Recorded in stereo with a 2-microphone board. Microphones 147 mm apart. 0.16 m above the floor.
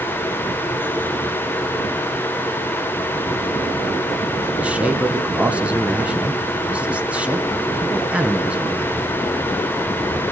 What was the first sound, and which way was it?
A man speaking, 10° right (ahead or behind).